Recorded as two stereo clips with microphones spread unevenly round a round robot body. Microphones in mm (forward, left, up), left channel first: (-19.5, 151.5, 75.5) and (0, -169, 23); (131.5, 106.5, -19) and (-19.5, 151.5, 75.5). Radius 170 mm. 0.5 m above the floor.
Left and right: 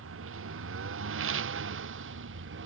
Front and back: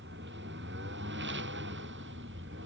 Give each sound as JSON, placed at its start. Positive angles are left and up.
{"t": 0.0, "sound": "a lawn mower", "azimuth_deg": -140}